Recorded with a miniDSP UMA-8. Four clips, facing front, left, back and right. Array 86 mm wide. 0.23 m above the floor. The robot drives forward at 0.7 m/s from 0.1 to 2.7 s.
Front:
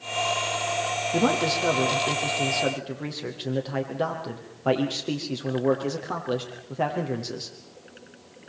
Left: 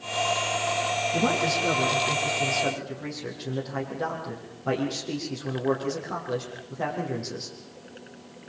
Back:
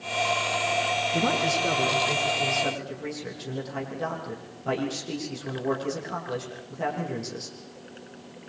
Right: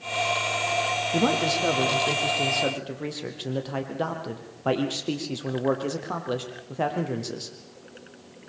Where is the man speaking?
40° right, 7 m; by 7.6 s 50° right, 6.5 m.